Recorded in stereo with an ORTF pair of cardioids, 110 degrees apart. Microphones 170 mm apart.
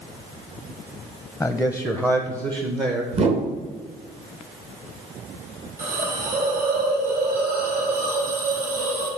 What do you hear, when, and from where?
1.4 s a man speaking: 10° left, 0.7 m; by 3.0 s 35° right, 1.2 m
3.1 s a whoosh: 40° right, 1.5 m
5.8 s a hiss: 55° right, 3.5 m